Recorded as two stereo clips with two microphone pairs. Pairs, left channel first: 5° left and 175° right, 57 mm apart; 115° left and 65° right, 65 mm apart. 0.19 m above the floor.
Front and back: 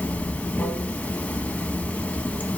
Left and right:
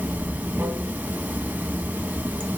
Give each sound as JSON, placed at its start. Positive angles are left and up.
{"t": 0.0, "sound": "running water", "azimuth_deg": -35, "distance_m": 0.8}